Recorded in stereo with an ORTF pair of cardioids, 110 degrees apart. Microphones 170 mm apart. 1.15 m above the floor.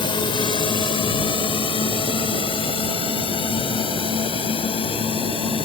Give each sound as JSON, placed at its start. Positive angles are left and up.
{"t": 0.0, "sound": "a drone", "azimuth_deg": 30}